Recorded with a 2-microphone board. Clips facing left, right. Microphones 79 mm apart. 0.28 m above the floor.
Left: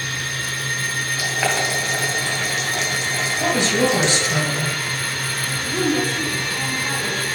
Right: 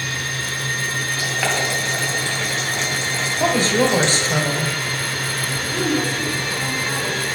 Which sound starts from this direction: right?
A woman speaking, at 3.4 s.